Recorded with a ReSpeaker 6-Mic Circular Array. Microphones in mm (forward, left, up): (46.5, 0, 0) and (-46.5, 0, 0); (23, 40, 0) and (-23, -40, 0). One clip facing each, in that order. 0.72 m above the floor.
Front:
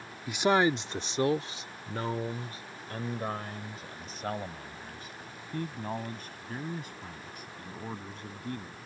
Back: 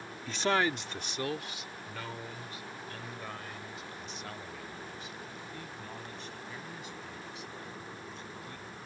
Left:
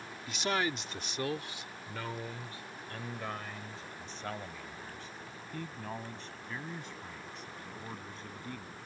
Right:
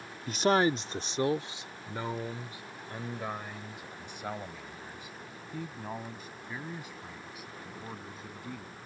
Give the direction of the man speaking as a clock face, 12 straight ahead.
3 o'clock.